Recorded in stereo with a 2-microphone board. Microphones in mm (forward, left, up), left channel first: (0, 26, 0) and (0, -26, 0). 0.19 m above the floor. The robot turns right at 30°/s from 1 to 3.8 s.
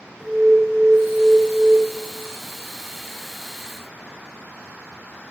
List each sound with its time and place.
0.2 s an alarm: 5° left (ahead or behind), 2.5 m; by 1.8 s 15° right (ahead or behind), 2.5 m